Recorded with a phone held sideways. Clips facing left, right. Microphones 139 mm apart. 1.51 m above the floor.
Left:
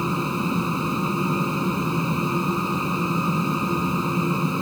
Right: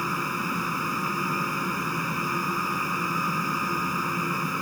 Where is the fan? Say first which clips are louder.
Left 6 dB; 20° left (ahead or behind).